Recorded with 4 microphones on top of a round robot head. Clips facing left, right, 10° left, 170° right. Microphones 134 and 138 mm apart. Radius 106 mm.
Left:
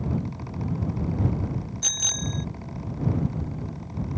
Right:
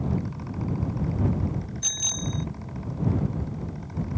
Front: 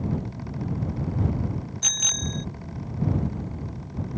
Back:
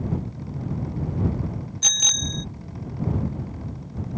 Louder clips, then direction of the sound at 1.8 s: Even, even; 135° left.